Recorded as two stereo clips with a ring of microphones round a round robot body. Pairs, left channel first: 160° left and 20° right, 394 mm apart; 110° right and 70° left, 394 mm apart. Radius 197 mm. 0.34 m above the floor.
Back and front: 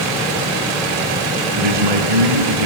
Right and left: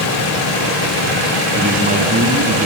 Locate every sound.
1.6 s a man speaking: straight ahead, 3 m